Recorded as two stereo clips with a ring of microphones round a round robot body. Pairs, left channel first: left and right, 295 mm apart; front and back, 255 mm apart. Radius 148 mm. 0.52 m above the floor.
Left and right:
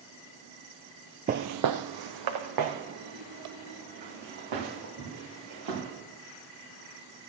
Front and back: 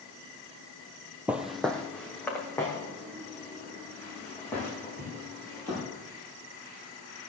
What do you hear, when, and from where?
1.3 s footsteps: 105° right, 0.5 m; by 5.8 s 80° right, 6.5 m